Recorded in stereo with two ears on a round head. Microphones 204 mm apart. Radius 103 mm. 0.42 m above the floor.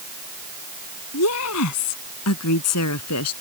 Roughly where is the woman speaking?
Left.